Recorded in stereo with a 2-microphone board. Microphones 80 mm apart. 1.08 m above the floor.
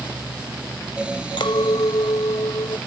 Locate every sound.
1.4 s a clink: 85° left